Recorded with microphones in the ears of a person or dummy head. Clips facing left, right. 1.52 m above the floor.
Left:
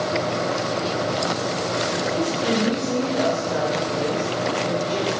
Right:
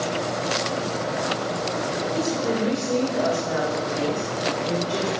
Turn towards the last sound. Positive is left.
turn(degrees=-5)  # may be behind; listen again after turning